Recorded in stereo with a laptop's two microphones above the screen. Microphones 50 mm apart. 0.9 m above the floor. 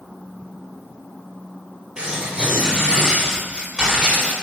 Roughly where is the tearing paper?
Right.